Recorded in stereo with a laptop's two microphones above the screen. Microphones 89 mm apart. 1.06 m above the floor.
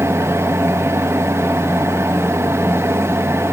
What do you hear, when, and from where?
0.0 s a fan: 30° right (ahead or behind), 1.0 m